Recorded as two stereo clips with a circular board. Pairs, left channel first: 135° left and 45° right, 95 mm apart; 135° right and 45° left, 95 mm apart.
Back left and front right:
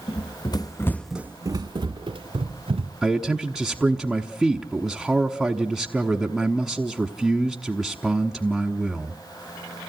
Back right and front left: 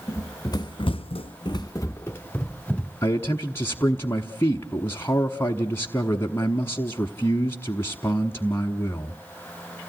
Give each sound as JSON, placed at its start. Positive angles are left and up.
{"t": 0.1, "sound": "running footsteps", "azimuth_deg": 165, "distance_m": 1.0}
{"t": 3.0, "sound": "a man speaking", "azimuth_deg": -130, "distance_m": 1.1}